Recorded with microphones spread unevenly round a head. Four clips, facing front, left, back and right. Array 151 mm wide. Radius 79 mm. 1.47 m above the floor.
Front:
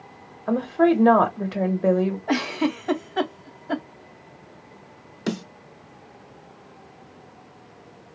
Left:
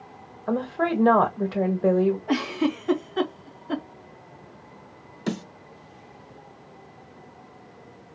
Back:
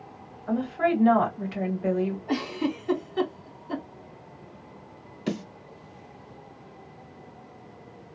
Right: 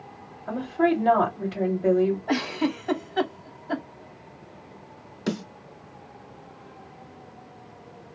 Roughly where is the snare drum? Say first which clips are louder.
Right 1 dB, front 2 dB; ahead.